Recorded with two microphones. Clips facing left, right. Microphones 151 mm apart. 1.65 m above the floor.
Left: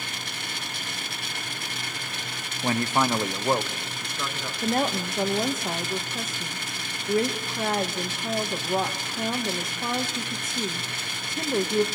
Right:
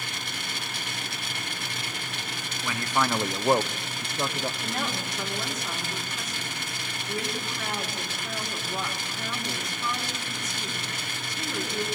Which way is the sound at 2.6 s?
45° left (ahead or behind).